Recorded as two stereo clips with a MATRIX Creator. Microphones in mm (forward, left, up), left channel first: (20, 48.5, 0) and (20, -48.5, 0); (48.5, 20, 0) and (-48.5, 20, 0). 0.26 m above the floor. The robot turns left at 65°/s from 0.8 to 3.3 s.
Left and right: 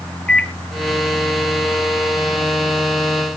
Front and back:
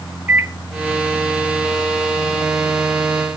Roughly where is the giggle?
No giggle in this recording.